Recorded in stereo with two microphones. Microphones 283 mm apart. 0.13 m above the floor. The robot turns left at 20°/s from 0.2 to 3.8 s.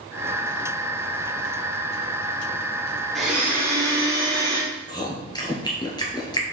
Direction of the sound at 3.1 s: Centre (ahead or behind).